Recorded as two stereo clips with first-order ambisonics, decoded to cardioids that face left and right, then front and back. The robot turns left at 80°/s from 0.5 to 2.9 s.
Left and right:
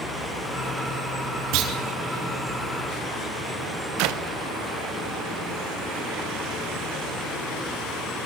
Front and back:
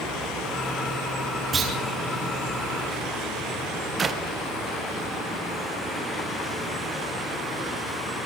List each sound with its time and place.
1.5 s a clunk: 110° right, 5.5 m; by 1.7 s 125° right, 5.5 m
4.0 s a clap: 110° right, 1.2 m